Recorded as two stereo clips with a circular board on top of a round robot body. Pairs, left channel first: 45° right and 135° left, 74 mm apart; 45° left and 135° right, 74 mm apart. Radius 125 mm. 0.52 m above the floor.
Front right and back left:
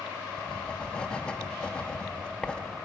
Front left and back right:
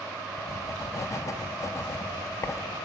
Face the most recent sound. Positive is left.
turn(degrees=25)